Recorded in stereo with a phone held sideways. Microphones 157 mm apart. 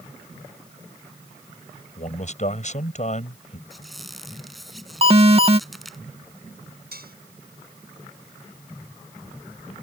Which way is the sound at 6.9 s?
80° right.